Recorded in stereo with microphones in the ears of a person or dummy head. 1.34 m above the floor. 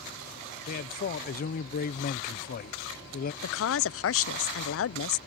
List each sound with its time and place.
0.7 s a man speaking: 40° left (ahead or behind)
3.4 s a woman speaking: 65° left (ahead or behind)